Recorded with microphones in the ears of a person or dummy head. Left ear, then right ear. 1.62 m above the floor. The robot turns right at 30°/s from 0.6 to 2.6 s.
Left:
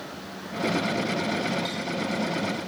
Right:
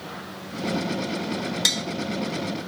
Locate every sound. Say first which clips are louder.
1.6 s tapping: right 9 dB; 80° right, 0.8 m; by 1.8 s 75° right (ahead or behind), 0.8 m